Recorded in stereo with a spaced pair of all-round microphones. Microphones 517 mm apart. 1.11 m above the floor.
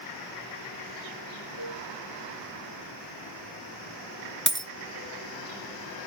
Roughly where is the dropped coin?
Right.